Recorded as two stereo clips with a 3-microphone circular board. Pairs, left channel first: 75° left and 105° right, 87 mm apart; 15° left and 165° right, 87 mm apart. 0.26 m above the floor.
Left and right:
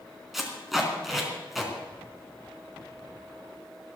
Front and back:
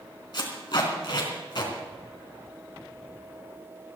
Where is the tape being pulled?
15° right, 3.5 m.